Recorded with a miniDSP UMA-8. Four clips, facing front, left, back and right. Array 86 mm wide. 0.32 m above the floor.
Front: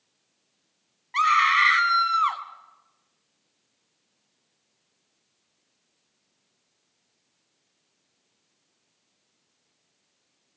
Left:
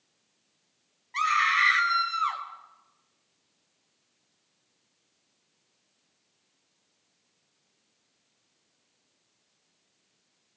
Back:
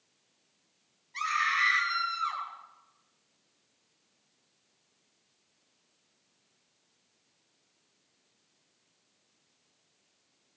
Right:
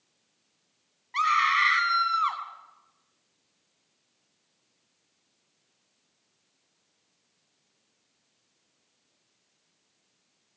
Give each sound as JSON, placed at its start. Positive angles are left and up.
{"t": 1.1, "sound": "a scream", "azimuth_deg": -10, "distance_m": 3.0}